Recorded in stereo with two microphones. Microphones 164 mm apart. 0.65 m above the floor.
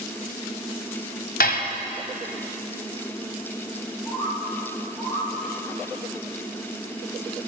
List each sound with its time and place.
1.4 s dishes clattering: 75° left (ahead or behind), 2.5 m
4.0 s a bird: 15° left (ahead or behind), 10 m